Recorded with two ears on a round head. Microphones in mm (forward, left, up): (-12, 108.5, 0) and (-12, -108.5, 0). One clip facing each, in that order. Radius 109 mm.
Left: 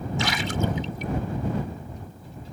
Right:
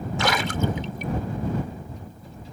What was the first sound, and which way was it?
A splash, 50° right (ahead or behind).